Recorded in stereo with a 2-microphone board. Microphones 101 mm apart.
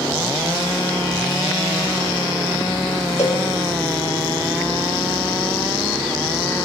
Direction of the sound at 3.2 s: 70° left (ahead or behind).